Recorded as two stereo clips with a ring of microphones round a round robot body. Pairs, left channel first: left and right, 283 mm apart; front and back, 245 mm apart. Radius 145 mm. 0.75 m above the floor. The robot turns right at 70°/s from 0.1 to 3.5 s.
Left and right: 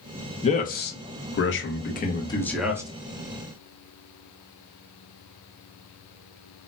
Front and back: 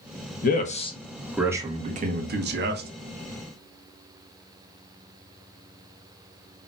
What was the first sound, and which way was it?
A man speaking, 30° left.